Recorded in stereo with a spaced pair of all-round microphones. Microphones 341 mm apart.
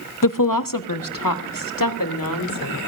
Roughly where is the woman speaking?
Left.